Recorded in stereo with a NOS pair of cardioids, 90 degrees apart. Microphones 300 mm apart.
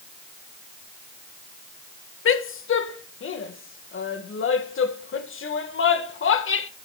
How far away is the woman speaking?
About 1.8 m.